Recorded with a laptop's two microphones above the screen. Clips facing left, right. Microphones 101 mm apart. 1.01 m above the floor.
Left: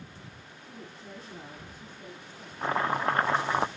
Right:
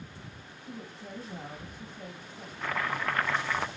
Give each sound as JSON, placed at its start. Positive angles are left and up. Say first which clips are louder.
{"t": 0.6, "sound": "a woman speaking", "louder": "right 3 dB", "side_deg": -50, "distance_m": 5.5}
{"t": 2.6, "sound": "chopping", "louder": "left 5 dB", "side_deg": 30, "distance_m": 0.6}